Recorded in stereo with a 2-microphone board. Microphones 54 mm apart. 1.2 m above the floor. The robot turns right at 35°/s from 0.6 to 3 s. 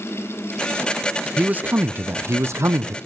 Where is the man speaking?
150° right, 0.6 m; by 3.0 s 95° right, 0.6 m.